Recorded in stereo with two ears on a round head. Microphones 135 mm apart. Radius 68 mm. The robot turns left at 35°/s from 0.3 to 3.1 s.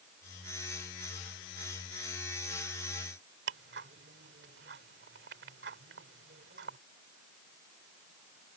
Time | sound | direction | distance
3.5 | ticking | 80° right | ?